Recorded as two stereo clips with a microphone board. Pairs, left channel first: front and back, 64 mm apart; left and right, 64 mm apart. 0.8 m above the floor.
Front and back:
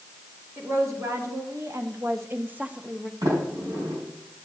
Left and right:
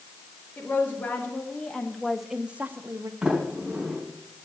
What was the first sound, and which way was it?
A woman speaking, 145° left.